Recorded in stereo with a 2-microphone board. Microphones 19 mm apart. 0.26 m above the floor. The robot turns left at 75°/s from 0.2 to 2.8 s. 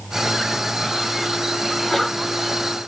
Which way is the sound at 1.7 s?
165° left.